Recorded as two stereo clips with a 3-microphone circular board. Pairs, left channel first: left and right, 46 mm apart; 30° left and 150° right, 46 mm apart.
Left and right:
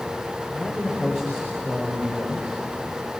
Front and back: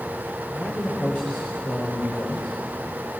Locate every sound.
0.5 s a man speaking: 20° right, 6 m